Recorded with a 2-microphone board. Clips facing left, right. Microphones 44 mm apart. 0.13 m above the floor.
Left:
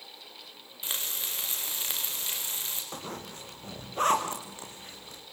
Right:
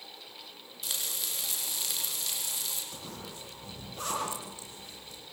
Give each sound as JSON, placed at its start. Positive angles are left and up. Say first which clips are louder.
{"t": 0.8, "sound": "frying", "louder": "left 2 dB", "side_deg": 30, "distance_m": 6.5}
{"t": 2.9, "sound": "a zipper", "louder": "left 4 dB", "side_deg": 50, "distance_m": 6.5}